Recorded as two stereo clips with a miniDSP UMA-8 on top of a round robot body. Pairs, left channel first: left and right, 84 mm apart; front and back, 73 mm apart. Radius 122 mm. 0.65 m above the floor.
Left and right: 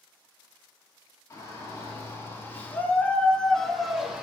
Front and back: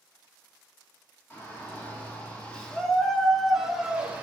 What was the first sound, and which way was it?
A shout, 50° left.